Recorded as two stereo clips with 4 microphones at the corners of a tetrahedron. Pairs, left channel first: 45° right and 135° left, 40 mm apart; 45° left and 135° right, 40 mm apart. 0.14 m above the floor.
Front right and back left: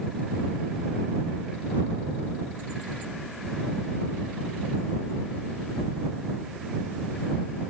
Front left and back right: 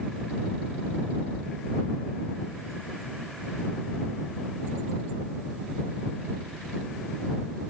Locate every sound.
Only background noise.